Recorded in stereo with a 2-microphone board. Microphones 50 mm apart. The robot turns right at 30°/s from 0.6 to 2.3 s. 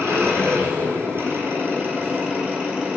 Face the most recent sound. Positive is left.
turn(degrees=-30)